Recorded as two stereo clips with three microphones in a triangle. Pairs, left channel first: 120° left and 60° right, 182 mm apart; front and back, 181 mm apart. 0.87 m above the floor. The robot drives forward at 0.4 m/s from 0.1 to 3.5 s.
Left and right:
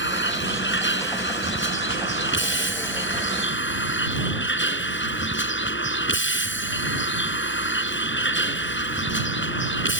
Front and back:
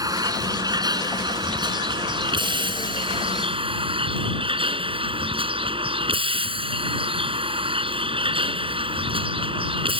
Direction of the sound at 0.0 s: 110° left.